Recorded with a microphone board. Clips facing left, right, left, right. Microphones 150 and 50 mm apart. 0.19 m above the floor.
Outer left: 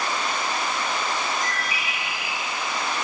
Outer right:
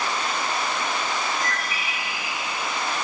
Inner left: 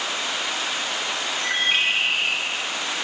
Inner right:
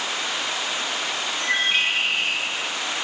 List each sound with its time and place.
1.4 s a bird: 15° left (ahead or behind), 3.5 m